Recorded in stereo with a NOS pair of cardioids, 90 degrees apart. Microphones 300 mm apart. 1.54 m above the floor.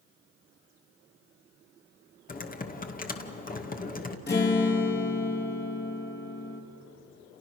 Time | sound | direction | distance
2.3 | typing on a keyboard | 30° left | 2 m
4.3 | a guitar | 35° left | 3.5 m